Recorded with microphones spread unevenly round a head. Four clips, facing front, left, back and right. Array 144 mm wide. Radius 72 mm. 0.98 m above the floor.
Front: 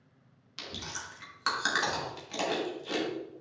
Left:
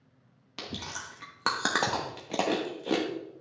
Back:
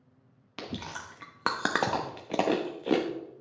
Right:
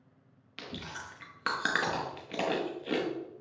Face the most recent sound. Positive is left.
turn(degrees=160)